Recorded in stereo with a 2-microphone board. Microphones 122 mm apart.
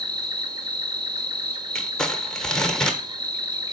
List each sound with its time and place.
0.0 s an insect: 35° right (ahead or behind), 1.4 m
1.8 s crumpling: 5° left (ahead or behind), 1.2 m